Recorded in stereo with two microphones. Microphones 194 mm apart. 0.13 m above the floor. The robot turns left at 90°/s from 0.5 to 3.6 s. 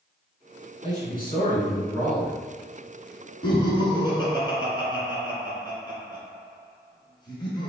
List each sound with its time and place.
0.8 s a man speaking: 25° left (ahead or behind), 1.3 m; by 2.4 s 5° right (ahead or behind), 1.3 m
3.4 s laughter: 30° left (ahead or behind), 1.4 m; by 7.7 s 25° left (ahead or behind), 1.4 m